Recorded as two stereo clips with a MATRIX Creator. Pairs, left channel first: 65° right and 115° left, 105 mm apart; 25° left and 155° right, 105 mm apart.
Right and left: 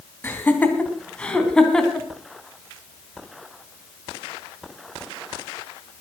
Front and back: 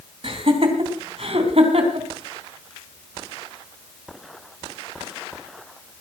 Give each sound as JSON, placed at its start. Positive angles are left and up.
{"t": 0.2, "sound": "laughter", "azimuth_deg": -135, "distance_m": 3.5}